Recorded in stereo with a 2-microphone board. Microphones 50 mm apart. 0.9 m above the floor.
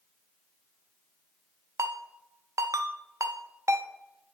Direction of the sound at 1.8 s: 80° right.